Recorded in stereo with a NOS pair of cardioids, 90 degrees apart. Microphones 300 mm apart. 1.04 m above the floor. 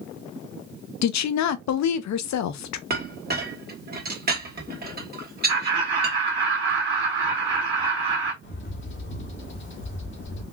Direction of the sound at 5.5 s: 25° right.